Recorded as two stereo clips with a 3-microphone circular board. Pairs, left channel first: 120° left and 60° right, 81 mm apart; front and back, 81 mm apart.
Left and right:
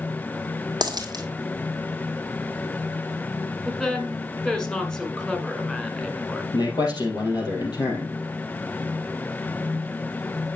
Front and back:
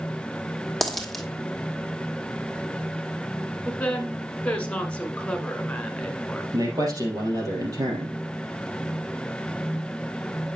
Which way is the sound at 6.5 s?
140° left.